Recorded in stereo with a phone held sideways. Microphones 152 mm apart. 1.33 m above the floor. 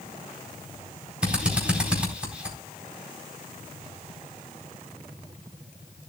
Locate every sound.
1.2 s a drill: 5° right (ahead or behind), 4 m